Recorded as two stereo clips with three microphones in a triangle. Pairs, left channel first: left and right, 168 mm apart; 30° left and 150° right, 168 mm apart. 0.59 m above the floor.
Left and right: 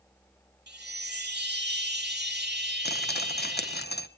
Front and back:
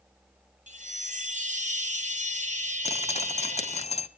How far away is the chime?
About 1.1 m.